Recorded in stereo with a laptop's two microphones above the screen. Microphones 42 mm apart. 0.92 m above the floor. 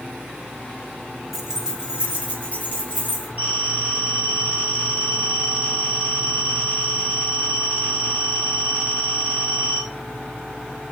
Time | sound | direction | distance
1.3 | keys jangling | 5° right (ahead or behind) | 0.6 m
3.4 | a phone ringing | 35° right (ahead or behind) | 1.4 m